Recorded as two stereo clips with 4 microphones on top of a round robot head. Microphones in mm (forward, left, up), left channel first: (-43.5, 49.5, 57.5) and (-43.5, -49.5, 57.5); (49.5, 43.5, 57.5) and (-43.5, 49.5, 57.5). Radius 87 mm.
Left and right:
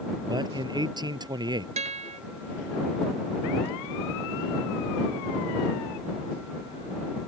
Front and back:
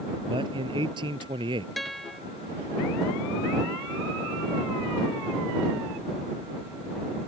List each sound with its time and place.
0.3 s a man speaking: 135° right
1.8 s a guitar: 95° right